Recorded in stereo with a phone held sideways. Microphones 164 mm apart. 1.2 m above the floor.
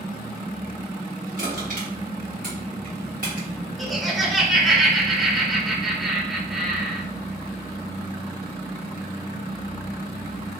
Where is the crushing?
55° right (ahead or behind), 1.5 m.